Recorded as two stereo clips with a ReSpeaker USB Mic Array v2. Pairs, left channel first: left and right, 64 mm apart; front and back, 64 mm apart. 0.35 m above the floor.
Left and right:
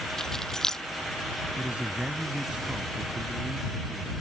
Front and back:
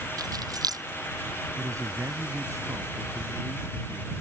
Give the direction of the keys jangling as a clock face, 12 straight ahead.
6 o'clock.